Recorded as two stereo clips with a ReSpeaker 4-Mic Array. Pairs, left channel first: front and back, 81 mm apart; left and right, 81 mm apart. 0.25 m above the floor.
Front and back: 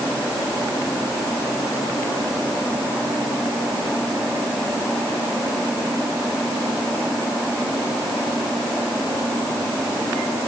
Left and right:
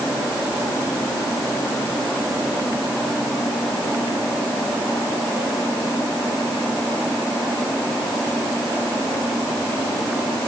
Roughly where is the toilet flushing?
No toilet flushing in this recording.